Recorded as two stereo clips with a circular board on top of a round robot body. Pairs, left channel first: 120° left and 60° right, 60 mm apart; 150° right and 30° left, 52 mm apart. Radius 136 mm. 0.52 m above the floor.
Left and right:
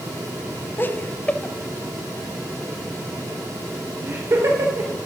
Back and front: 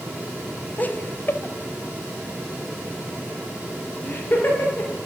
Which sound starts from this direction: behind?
Laughter, at 0.8 s.